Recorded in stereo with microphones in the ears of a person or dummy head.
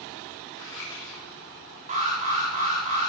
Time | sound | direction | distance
0.6 | scissors | 20° left (ahead or behind) | 8 m
1.9 | an alarm | 40° right (ahead or behind) | 5.5 m